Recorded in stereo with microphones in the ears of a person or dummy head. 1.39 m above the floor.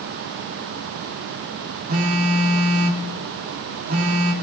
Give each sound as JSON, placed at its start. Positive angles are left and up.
{"t": 1.9, "sound": "a phone buzzing", "side_deg": -45, "distance_m": 2.0}